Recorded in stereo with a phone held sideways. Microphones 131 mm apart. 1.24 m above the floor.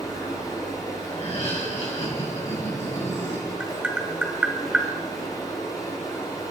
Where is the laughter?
60° left (ahead or behind), 6.5 m.